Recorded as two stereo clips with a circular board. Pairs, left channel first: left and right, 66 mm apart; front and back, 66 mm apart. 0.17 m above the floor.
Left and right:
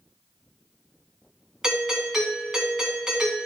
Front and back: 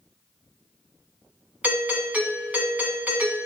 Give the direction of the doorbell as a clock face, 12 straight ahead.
5 o'clock.